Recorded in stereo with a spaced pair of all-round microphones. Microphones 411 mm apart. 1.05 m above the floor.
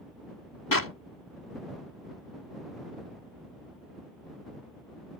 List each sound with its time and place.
0.7 s a clap: 55° left (ahead or behind)